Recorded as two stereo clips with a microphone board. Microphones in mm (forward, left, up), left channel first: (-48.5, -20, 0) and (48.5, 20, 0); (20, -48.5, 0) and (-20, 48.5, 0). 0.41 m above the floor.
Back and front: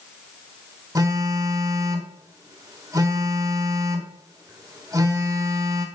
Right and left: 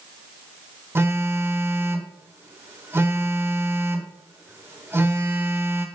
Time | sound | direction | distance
0.9 | a phone buzzing | 55° left | 1.0 m